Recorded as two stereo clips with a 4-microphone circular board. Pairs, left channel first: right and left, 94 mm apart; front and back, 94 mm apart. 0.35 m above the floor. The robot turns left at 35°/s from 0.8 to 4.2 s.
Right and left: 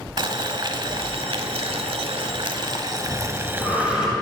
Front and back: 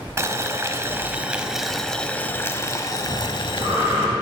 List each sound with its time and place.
0.2 s boiling: 120° left, 0.7 m; by 4.1 s 10° left, 0.7 m
3.1 s breathing: 140° right, 4.5 m; by 4.1 s straight behind, 4.5 m